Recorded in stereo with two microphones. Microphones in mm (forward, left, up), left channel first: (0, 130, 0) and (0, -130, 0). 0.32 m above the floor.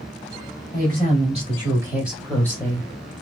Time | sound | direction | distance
0.7 | a woman speaking | 35° right (ahead or behind) | 1.9 m